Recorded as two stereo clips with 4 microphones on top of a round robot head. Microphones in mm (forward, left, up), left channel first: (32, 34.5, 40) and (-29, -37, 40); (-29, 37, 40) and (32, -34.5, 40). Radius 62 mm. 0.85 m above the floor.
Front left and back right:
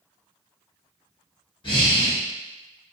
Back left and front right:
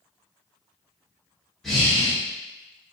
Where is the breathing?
45° left, 1.4 m.